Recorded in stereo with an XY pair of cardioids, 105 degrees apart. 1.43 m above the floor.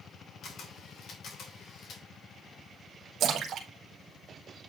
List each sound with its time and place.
0.4 s a camera shutter: 65° left, 2.5 m
3.2 s a splash: 70° right, 1.5 m